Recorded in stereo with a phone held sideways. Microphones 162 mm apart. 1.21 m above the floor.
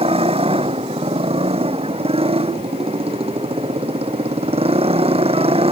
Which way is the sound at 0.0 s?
35° right (ahead or behind).